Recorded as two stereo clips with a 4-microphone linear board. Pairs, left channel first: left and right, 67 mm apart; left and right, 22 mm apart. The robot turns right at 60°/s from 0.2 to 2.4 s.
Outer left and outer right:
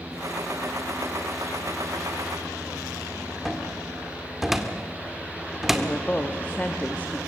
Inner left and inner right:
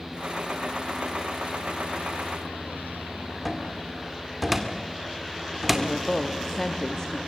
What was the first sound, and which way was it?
A cupboard door, 5° right (ahead or behind).